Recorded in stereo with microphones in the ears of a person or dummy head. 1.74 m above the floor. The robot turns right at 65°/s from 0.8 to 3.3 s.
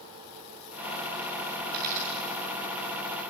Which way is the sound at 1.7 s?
70° right (ahead or behind).